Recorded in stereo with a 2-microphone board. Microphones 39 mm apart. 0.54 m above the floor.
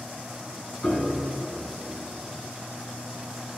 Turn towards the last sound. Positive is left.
turn(degrees=30)  # may be behind; listen again after turning